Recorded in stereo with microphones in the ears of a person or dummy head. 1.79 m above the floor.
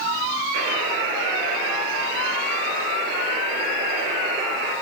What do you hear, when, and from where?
0.5 s a buzzer: 75° right (ahead or behind), 8 m